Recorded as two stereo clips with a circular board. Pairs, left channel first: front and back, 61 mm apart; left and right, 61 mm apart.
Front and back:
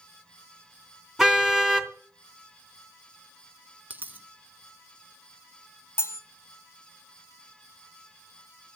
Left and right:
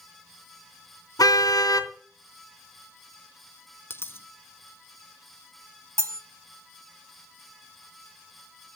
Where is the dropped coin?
125° left, 0.9 m.